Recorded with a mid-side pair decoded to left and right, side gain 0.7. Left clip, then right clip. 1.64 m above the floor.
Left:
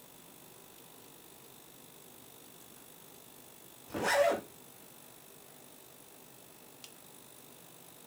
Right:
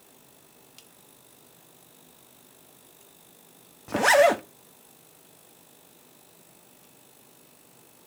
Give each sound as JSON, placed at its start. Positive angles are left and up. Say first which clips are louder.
{"t": 3.9, "sound": "a zipper", "louder": "right 10 dB", "azimuth_deg": -55, "distance_m": 1.3}